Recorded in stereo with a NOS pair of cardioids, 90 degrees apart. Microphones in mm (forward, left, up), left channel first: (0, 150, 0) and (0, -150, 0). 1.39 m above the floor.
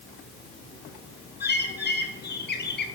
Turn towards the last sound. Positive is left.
turn(degrees=35)